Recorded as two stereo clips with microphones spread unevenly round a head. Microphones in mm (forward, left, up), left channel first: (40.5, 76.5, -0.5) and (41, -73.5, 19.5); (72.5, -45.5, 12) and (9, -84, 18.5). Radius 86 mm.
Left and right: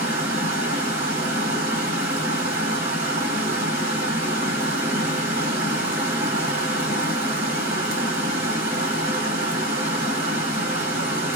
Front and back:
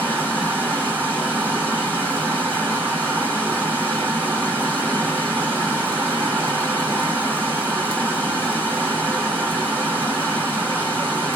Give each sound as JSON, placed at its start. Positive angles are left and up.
{"t": 0.0, "sound": "running water", "azimuth_deg": -90, "distance_m": 2.0}